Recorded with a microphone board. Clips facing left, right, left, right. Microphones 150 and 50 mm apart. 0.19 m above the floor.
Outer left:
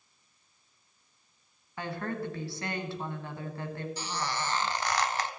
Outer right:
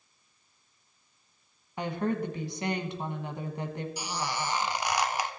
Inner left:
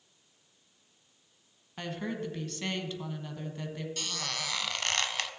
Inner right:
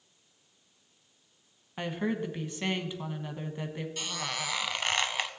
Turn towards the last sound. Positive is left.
turn(degrees=-15)  # may be behind; listen again after turning